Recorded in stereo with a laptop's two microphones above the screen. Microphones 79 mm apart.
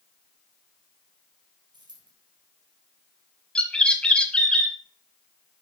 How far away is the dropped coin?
About 3.5 m.